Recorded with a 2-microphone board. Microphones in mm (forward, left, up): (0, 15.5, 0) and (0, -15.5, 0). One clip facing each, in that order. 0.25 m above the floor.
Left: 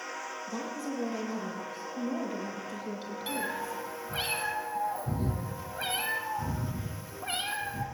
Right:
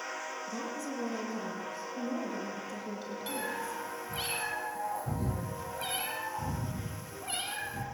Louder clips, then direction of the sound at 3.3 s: Left 3 dB; 20° left (ahead or behind).